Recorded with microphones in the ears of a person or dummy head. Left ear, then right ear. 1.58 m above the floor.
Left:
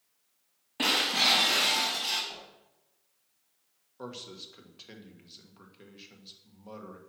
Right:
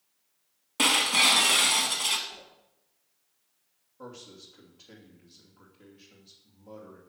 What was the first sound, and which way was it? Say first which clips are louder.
Breaking glass: right 3 dB; 30° right (ahead or behind).